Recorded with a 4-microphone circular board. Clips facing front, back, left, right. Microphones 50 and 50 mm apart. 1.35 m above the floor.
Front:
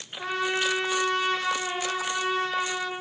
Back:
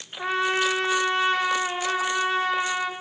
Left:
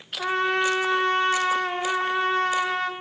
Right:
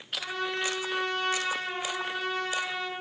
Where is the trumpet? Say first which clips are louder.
Back 4 dB, left 9 dB; 120° left, 1.1 m.